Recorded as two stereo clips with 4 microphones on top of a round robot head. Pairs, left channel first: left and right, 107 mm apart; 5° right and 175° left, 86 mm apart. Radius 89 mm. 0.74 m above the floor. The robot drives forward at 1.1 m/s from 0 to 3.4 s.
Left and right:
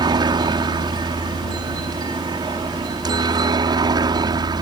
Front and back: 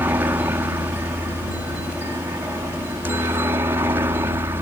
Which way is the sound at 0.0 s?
120° right.